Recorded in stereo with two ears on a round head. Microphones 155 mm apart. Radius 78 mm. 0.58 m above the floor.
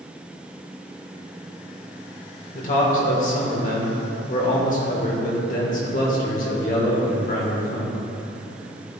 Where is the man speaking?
45° left (ahead or behind), 1.6 m.